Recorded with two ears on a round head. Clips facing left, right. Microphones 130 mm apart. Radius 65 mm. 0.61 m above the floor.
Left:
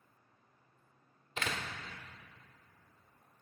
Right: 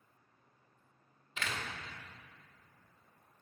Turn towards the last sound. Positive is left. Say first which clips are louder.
# left 2 dB
turn(degrees=35)  # may be behind; listen again after turning